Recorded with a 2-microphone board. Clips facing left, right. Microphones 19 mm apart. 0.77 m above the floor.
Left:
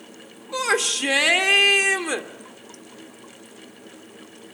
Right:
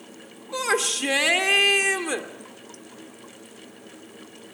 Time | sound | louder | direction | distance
0.5 | a shout | left 2 dB | 10° left (ahead or behind) | 2 m